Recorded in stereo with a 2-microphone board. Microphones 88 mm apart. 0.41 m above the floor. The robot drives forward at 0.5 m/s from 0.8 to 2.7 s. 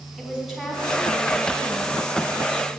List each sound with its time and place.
0.2 s a woman speaking: 5° right (ahead or behind), 2.5 m